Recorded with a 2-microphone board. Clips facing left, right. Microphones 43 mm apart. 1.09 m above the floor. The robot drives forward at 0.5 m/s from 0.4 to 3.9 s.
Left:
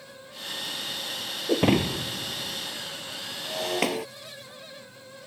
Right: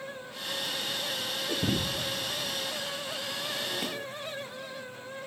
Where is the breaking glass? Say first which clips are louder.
Left 10 dB; 75° left (ahead or behind); by 4.1 s 80° left.